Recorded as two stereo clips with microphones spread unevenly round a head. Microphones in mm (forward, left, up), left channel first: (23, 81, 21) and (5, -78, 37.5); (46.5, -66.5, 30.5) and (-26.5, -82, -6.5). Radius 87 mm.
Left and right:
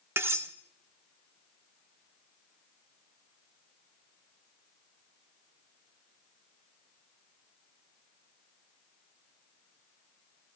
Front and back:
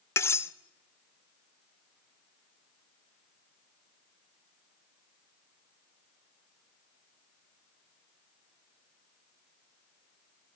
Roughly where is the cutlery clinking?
Ahead right.